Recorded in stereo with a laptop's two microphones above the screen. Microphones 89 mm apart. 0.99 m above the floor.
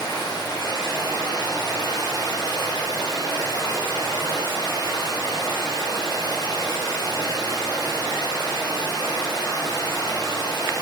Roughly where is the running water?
Left.